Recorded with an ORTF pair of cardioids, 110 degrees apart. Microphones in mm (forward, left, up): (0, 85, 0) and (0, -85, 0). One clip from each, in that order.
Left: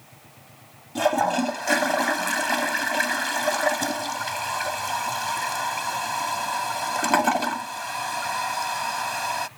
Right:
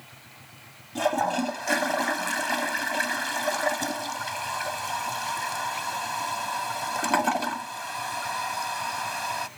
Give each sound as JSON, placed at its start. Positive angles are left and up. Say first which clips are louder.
{"t": 0.9, "sound": "a toilet flushing", "louder": "left 3 dB", "azimuth_deg": 15}